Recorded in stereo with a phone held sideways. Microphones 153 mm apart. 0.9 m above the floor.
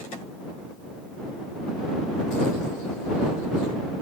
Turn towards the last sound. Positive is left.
No sound to turn to.